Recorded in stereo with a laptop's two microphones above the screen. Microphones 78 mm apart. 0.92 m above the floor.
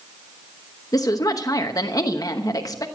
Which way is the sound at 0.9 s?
45° left (ahead or behind).